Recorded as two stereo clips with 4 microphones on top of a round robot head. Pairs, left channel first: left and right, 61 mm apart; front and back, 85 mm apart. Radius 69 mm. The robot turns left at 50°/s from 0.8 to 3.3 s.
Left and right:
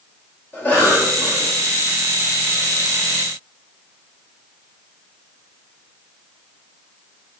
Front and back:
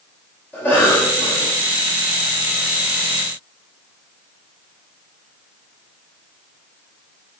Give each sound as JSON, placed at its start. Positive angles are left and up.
{"t": 0.5, "sound": "a cough", "azimuth_deg": 55, "distance_m": 1.6}